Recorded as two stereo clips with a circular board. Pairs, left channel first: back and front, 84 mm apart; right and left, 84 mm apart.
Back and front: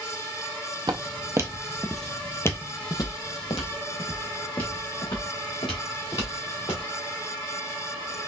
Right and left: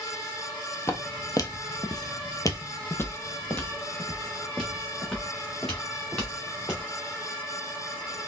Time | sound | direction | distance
0.9 | footsteps | 35° right | 0.8 m